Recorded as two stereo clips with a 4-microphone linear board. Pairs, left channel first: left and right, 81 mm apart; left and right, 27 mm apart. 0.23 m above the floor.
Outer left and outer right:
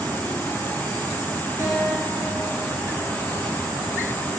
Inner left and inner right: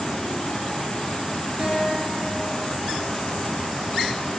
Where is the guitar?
50° right (ahead or behind), 3.5 m.